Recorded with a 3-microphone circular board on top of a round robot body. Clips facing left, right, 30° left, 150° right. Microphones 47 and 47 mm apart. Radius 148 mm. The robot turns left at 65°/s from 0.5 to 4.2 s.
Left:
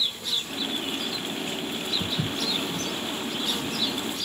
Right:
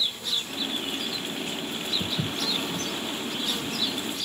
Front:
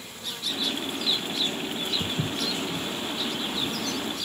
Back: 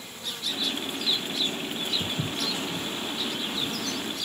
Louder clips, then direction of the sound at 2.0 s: Left 1 dB, front 1 dB; 10° right.